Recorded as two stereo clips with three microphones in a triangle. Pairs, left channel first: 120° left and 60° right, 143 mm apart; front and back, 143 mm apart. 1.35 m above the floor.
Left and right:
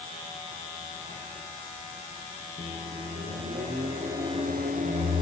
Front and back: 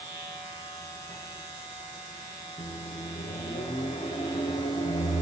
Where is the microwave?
50° right, 2 m.